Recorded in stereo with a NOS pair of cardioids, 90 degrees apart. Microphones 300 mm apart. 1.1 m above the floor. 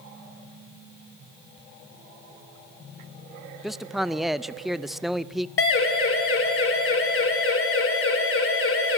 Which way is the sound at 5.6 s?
45° left.